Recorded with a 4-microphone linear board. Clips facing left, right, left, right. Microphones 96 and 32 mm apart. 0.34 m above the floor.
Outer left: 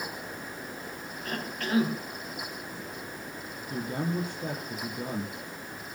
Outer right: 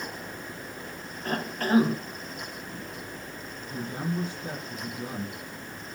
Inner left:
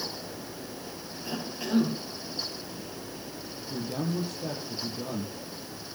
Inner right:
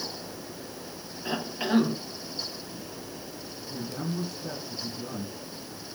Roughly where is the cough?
Right.